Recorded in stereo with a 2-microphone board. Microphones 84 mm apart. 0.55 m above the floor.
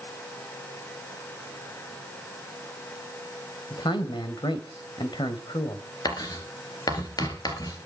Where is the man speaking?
70° left (ahead or behind), 2.5 m.